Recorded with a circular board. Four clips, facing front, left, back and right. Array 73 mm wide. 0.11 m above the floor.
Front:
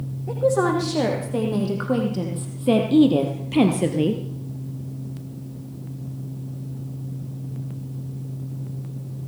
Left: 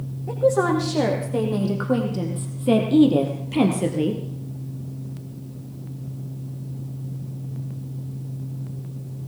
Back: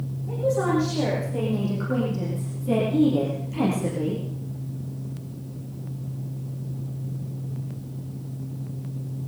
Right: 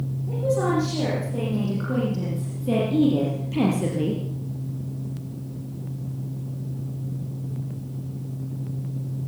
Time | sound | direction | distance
0.3 | a woman speaking | 50° left | 7 m